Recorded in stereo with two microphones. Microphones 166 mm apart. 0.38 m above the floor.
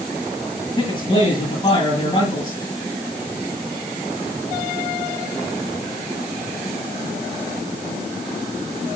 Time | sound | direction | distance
0.8 | a man speaking | 25° left (ahead or behind) | 7.5 m